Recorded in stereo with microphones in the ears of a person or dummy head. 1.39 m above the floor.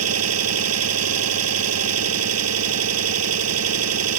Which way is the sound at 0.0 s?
85° right.